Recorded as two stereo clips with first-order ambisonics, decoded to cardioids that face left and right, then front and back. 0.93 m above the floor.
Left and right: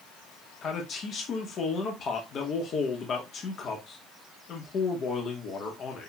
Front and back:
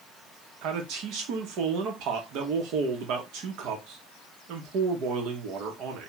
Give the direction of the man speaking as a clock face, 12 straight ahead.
7 o'clock.